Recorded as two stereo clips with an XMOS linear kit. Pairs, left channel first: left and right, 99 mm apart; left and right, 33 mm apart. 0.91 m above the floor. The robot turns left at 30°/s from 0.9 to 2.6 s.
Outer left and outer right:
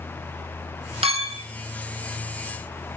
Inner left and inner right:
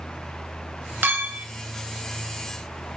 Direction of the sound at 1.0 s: 70° right (ahead or behind).